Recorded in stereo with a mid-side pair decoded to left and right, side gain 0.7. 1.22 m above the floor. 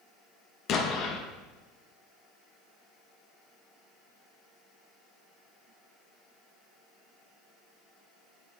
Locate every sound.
0.7 s an explosion: 50° left, 0.5 m